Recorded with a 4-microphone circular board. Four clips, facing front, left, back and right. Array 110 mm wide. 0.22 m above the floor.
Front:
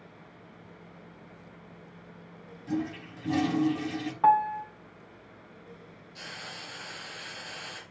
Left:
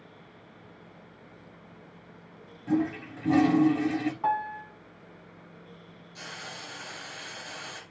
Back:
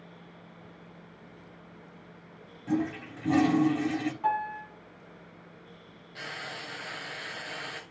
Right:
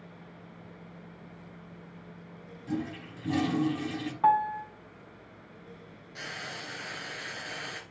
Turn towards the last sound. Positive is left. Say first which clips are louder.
# right 2 dB, back 4 dB
turn(degrees=-125)